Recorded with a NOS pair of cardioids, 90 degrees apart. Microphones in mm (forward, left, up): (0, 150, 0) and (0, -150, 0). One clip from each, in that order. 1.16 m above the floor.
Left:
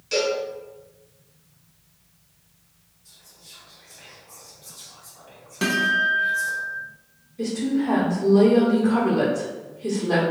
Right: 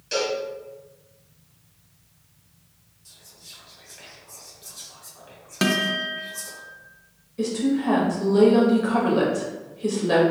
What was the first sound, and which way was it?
A cowbell, 5° right.